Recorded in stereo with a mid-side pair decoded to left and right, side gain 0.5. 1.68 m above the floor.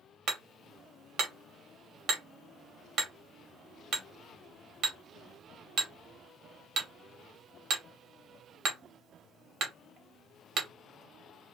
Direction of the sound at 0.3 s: 60° right.